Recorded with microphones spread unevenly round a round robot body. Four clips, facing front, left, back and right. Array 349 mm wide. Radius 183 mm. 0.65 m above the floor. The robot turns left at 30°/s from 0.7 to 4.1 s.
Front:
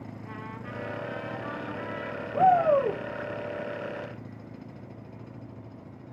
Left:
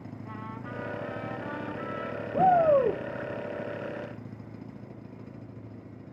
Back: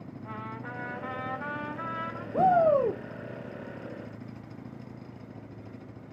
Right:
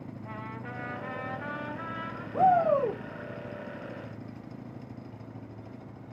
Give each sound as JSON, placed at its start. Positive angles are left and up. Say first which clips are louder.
{"t": 0.2, "sound": "a trumpet", "louder": "left 1 dB, back 3 dB", "azimuth_deg": -115, "distance_m": 4.0}
{"t": 2.3, "sound": "a shout", "louder": "left 2 dB, front 1 dB", "azimuth_deg": 130, "distance_m": 1.4}